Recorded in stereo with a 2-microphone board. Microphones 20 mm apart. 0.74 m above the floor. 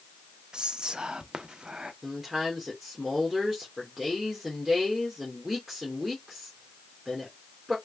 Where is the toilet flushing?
No toilet flushing in this recording.